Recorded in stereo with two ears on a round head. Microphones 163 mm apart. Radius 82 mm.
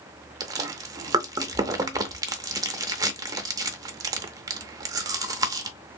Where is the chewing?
20° right (ahead or behind), 0.6 m.